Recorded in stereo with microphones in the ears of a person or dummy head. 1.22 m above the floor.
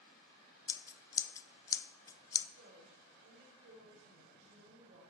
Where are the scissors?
15° left (ahead or behind), 0.5 m.